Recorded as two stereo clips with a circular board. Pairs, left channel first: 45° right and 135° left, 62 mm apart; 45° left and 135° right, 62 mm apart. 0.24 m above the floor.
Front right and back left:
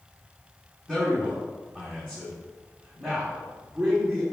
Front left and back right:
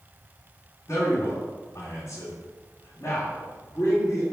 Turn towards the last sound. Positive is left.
turn(degrees=65)